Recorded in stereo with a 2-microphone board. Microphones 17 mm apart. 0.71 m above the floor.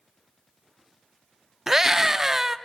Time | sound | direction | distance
1.7 | a scream | 20° right (ahead or behind) | 0.9 m